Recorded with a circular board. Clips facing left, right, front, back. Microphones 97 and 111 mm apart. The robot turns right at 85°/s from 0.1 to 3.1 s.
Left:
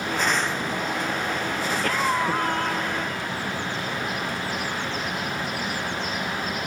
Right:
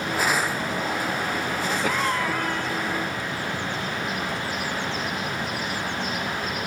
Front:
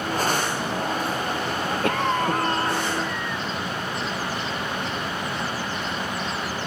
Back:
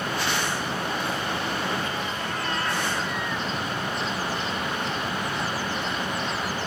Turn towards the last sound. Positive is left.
turn(degrees=95)